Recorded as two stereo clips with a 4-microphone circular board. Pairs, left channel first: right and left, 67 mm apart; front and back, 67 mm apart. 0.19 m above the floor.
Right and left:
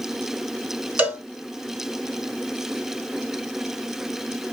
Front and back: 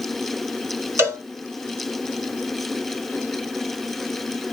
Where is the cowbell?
145° left, 2.5 m.